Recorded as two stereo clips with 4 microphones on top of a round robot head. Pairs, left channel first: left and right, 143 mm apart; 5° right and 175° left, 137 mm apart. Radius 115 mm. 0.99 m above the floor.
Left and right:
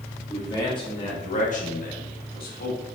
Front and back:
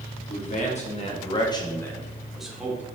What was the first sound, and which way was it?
A man speaking, 20° left.